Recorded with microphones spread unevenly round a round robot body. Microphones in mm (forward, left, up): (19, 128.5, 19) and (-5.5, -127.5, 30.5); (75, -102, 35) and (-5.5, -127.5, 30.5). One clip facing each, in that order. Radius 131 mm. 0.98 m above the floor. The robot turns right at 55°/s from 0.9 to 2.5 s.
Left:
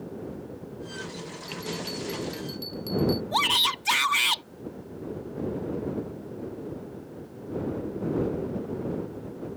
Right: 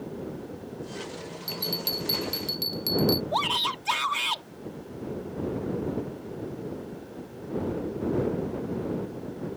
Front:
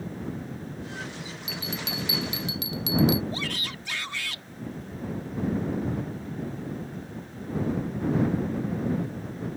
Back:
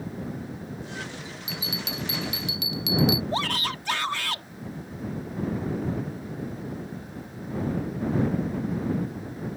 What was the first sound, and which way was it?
A bell, 95° right.